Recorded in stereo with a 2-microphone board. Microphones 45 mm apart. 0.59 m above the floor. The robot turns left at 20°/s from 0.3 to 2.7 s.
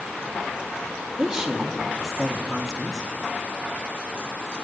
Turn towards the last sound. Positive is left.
turn(degrees=0)  # may be behind; listen again after turning